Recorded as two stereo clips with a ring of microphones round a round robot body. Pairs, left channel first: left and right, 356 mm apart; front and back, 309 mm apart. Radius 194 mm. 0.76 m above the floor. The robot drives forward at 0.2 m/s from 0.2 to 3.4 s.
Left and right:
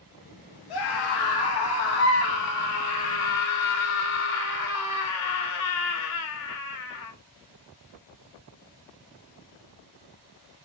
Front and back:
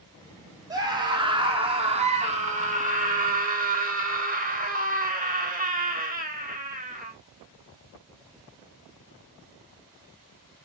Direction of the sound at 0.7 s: 100° left.